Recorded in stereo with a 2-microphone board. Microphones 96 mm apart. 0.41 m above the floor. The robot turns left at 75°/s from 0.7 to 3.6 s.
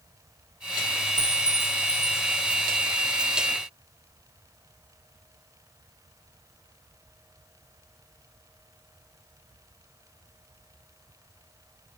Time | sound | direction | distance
1.2 | a clink | 110° right | 0.5 m